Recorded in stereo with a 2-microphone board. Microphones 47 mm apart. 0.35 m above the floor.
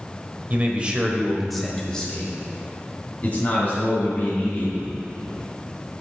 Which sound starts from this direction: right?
A man speaking, at 0.5 s.